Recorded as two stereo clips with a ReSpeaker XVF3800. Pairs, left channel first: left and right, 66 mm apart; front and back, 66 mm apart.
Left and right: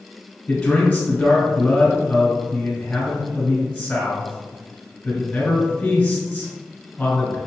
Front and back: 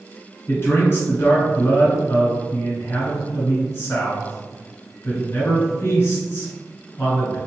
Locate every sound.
0.5 s a man speaking: 25° left, 1.7 m